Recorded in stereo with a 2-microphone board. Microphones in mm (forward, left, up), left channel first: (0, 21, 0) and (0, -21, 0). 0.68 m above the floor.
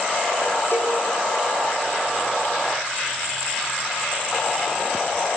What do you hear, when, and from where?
0.7 s a cowbell: 70° left (ahead or behind), 7.5 m